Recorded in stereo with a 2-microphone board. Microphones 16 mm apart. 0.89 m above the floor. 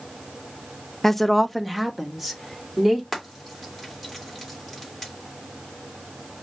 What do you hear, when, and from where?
1.0 s a woman speaking: 10° left (ahead or behind), 0.5 m; by 3.0 s 15° right (ahead or behind), 2 m
3.1 s frying: centre (ahead or behind), 2.5 m